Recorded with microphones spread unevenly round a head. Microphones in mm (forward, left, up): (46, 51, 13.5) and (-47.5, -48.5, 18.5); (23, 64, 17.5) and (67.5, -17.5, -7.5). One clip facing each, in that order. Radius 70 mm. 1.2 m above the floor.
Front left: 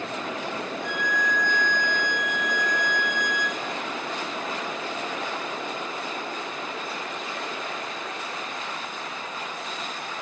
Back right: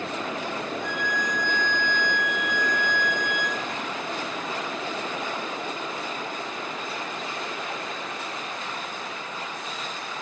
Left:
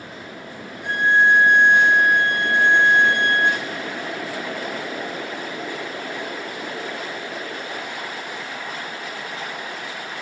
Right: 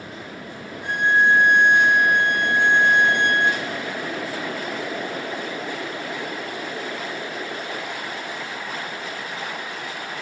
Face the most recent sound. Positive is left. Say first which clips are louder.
# front left 1 dB, left 1 dB
turn(degrees=-130)